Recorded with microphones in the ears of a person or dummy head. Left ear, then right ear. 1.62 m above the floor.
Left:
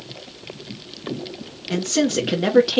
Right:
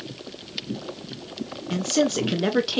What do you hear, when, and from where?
1.7 s a man speaking: 5° left (ahead or behind), 0.6 m